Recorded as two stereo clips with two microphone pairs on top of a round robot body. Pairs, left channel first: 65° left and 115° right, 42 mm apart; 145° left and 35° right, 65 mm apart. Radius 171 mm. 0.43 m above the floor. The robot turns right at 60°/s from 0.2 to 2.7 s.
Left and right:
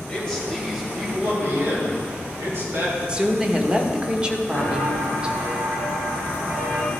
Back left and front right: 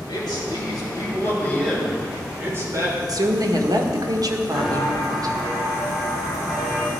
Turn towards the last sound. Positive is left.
turn(degrees=-110)